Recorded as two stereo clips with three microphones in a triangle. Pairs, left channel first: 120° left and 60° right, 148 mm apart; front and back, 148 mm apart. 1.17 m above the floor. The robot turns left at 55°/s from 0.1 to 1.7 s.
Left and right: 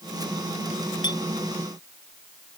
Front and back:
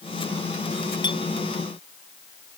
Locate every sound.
1.0 s a clink: 60° left; by 1.2 s 50° left